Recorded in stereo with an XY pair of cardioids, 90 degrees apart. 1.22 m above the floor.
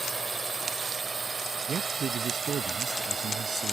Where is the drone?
30° right; by 3.7 s 50° right.